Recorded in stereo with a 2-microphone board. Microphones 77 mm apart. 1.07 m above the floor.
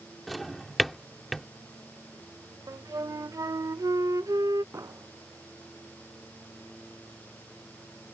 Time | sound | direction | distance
0.3 | a drawer | centre (ahead or behind) | ?
2.7 | a flute | 50° right (ahead or behind) | ?
4.7 | an explosion | 40° right (ahead or behind) | ?